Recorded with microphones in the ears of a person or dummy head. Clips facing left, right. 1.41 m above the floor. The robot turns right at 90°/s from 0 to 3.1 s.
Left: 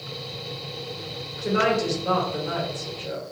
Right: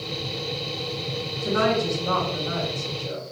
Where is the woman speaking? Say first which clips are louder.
Even; 15° left, 1.7 m; by 3.3 s 165° left, 1.7 m.